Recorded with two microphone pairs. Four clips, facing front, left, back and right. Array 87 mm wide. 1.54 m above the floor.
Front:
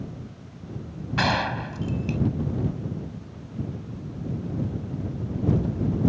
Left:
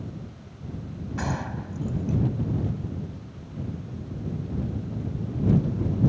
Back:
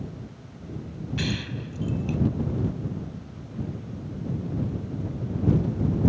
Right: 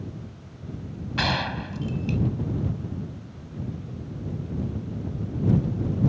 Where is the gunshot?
20° right.